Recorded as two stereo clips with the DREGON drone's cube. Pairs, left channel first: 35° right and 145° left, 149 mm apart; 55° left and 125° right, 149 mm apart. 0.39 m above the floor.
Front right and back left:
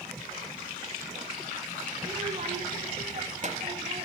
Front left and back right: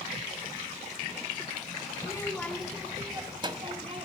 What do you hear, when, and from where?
2.0 s a child speaking: 105° left, 0.8 m; by 4.1 s 170° right, 1.6 m